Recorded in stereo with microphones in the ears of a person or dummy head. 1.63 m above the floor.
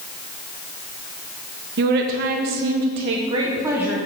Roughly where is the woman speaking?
Right.